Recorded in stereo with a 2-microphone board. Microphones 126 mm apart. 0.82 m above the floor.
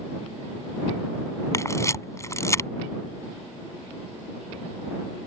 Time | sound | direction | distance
1.5 | a camera shutter | 25° left (ahead or behind) | ?